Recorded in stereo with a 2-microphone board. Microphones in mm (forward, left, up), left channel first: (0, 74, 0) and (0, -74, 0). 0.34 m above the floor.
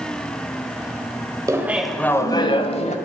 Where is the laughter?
20° right (ahead or behind), 1.1 m; by 3.0 s 50° left (ahead or behind), 1.4 m.